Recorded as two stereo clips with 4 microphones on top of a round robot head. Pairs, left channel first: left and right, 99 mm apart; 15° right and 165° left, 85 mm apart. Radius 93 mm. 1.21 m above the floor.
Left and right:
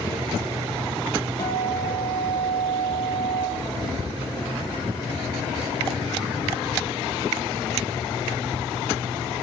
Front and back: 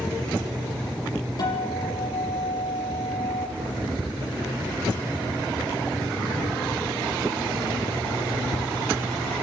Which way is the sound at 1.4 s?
30° left.